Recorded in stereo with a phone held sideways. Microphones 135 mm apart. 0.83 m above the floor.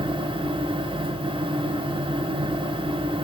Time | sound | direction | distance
0.0 | a fan | 40° right (ahead or behind) | 1.0 m